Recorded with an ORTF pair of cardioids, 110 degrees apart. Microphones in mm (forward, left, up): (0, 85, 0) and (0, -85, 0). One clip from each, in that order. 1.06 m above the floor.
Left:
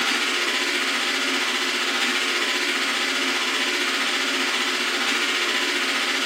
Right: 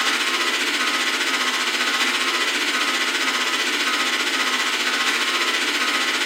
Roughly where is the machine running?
Ahead right.